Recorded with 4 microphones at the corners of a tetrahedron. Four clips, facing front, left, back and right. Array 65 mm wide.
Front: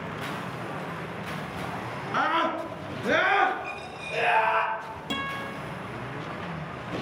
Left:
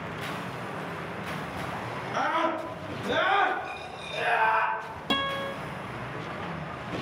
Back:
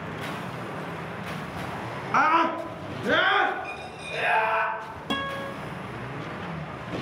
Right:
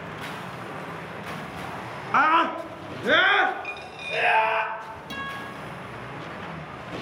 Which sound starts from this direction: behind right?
A scream, at 2.1 s.